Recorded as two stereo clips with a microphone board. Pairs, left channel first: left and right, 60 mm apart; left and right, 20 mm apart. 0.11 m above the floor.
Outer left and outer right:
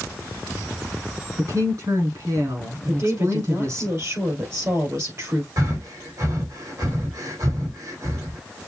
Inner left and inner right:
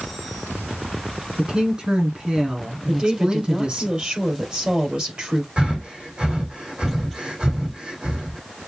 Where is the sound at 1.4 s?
60° right (ahead or behind), 3.5 m.